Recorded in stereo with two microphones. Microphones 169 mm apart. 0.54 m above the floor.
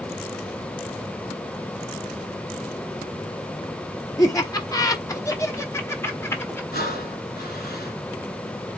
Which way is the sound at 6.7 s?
75° left (ahead or behind).